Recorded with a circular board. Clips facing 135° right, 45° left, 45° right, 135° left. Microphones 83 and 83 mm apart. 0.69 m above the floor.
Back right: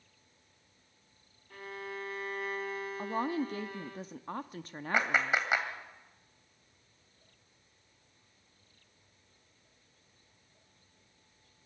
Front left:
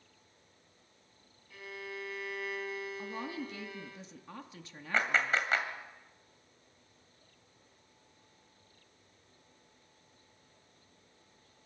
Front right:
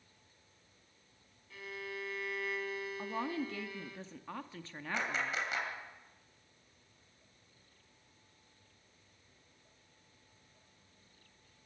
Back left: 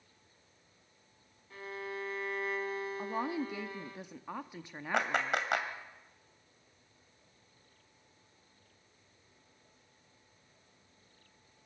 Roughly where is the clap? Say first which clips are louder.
Back right 1 dB, back left 5 dB; behind left.